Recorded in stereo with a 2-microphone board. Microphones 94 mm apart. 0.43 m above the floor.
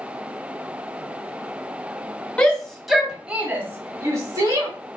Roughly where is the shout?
Centre.